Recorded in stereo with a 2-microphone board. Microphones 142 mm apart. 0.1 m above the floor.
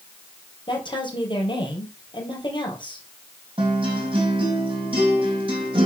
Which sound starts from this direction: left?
A woman speaking, at 0.7 s.